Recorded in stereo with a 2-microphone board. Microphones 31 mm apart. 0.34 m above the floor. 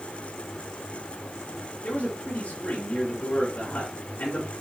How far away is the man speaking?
About 6 m.